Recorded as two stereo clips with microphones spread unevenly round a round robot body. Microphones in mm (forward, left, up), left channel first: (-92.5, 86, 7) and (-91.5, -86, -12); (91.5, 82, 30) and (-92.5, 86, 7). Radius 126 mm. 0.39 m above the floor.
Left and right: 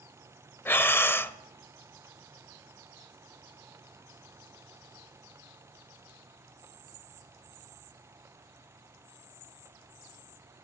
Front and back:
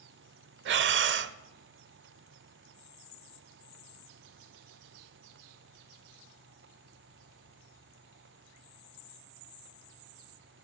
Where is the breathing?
170° left, 0.5 m.